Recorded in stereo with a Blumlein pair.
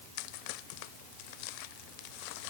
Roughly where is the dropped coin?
I don't hear a dropped coin.